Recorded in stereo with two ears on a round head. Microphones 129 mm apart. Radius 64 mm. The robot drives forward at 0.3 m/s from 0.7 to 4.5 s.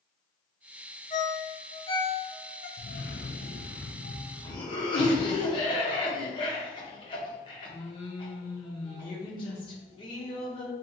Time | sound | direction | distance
1.1 | a ringtone | 30° left (ahead or behind) | 0.9 m
2.8 | a cough | 55° left (ahead or behind) | 0.5 m